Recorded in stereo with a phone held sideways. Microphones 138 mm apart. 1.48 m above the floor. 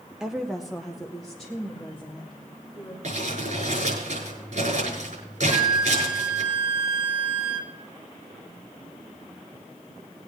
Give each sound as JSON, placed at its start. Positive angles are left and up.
{"t": 0.2, "sound": "a woman speaking", "side_deg": -5, "distance_m": 0.6}
{"t": 3.0, "sound": "crumpling", "side_deg": -65, "distance_m": 6.0}
{"t": 5.5, "sound": "a flute", "side_deg": -20, "distance_m": 1.6}